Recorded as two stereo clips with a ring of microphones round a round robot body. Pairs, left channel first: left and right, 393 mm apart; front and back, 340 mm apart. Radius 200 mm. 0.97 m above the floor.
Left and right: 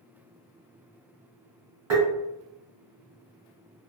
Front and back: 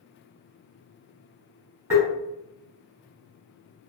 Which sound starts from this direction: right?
Tapping, at 1.9 s.